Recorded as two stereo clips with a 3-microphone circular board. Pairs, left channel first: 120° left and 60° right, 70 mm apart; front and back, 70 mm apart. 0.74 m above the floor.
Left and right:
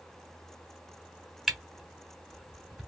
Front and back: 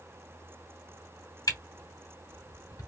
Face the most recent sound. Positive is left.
turn(degrees=30)